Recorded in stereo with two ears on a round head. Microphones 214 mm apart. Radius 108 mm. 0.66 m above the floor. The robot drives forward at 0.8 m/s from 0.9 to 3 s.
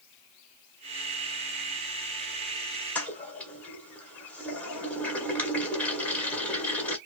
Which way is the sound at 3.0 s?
5° left (ahead or behind).